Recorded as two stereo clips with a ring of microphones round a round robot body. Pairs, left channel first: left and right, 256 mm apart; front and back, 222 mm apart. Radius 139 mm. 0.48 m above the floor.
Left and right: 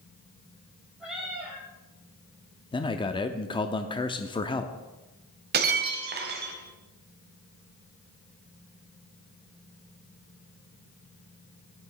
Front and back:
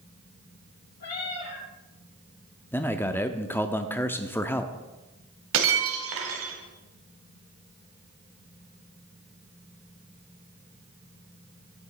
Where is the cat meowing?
Straight ahead, 3 m.